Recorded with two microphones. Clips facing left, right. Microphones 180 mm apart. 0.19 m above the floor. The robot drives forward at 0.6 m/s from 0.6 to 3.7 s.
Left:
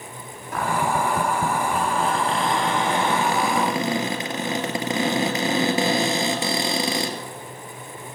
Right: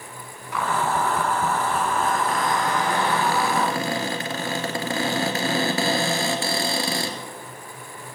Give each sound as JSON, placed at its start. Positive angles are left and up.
{"t": 0.5, "sound": "a cupboard door", "side_deg": 45, "distance_m": 0.9}